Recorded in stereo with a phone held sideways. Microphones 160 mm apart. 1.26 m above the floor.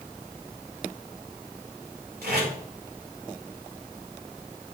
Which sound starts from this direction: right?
Tape being pulled, at 2.2 s.